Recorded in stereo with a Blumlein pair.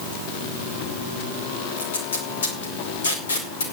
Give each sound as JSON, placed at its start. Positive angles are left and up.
{"t": 1.8, "sound": "tape being pulled", "azimuth_deg": 65, "distance_m": 5.0}